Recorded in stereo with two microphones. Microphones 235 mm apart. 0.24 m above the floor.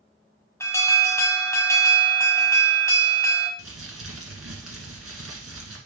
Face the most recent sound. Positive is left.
turn(degrees=-70)  # may be behind; listen again after turning